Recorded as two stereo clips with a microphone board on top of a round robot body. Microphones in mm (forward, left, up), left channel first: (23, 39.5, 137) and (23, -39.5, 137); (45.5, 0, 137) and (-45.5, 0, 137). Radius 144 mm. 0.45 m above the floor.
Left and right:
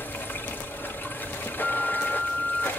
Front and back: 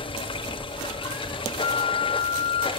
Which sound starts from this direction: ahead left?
Running water, at 0.0 s.